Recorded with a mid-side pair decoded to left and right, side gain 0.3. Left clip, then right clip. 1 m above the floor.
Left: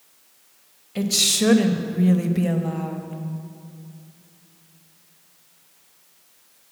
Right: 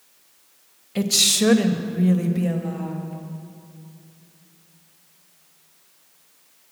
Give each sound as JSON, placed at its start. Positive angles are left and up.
{"t": 0.9, "sound": "a woman speaking", "azimuth_deg": -35, "distance_m": 0.9}